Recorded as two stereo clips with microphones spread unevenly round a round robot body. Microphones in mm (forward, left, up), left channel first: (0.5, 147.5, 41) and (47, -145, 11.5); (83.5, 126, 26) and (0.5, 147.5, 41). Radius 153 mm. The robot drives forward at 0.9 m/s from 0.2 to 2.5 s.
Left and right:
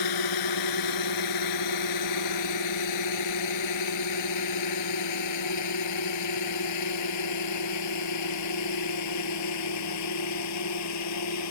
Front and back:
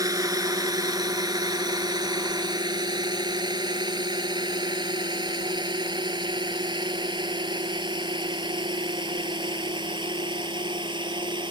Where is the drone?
120° left; by 11.5 s 140° left.